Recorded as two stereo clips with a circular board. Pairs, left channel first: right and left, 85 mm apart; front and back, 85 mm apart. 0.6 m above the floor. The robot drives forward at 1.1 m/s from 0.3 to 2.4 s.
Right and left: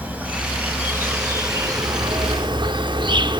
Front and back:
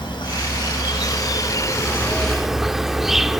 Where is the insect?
20° left, 2.5 m; by 3.4 s 95° left, 0.8 m.